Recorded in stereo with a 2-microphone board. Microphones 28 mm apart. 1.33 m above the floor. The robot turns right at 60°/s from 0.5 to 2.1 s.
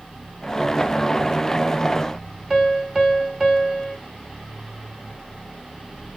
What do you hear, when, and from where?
2.5 s a piano: 15° right (ahead or behind), 1.1 m